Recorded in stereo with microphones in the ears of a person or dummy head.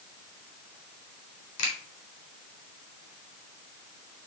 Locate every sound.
1.6 s a finger snap: 65° left (ahead or behind), 3.5 m